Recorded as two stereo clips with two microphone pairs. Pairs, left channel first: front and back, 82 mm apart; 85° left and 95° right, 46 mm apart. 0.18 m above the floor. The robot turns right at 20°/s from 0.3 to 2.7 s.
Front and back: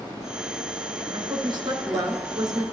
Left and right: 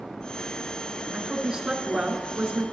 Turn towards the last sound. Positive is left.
turn(degrees=-145)